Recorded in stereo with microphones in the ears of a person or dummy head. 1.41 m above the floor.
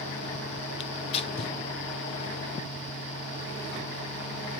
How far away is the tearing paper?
About 0.9 m.